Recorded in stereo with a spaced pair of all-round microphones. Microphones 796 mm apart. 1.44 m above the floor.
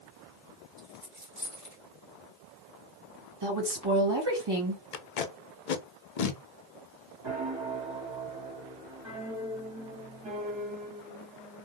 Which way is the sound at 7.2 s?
35° right (ahead or behind).